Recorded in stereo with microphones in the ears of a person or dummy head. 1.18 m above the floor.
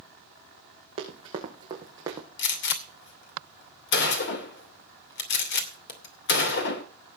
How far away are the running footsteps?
About 3.5 m.